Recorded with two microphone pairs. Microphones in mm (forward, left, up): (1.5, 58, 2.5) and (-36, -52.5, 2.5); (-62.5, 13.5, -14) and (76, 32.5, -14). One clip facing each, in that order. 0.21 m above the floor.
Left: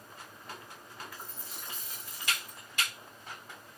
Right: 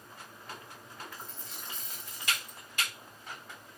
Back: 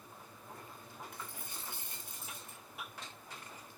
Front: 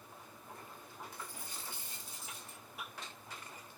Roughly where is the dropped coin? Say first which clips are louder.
Even, even; behind left.